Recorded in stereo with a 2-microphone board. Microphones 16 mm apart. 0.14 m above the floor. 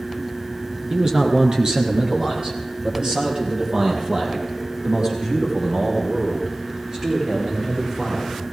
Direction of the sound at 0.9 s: 40° right (ahead or behind).